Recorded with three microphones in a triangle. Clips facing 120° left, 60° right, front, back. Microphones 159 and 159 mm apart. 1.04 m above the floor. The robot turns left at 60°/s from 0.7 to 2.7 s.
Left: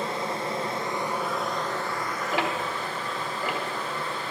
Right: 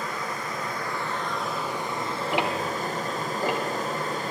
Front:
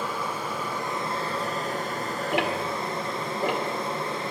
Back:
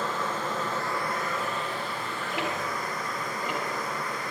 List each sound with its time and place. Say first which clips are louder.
0.0 s running water: left 3 dB, even; 75° left, 1.3 m; by 4.3 s 45° right, 1.3 m
2.3 s ticking: right 2 dB, front 5 dB; 15° left, 1.5 m; by 3.6 s 10° right, 1.5 m